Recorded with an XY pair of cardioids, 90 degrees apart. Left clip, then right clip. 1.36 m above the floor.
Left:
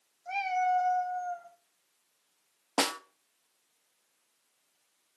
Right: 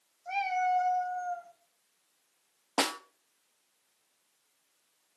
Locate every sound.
0.2 s a cat meowing: 5° right, 3.5 m
2.8 s a snare drum: 20° left, 0.5 m